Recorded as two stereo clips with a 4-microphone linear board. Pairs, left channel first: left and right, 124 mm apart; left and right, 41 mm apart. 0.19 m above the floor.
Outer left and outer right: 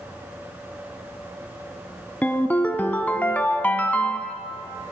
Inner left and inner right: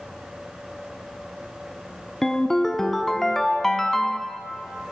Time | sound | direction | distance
2.2 | a ringtone | 15° left (ahead or behind) | 0.7 m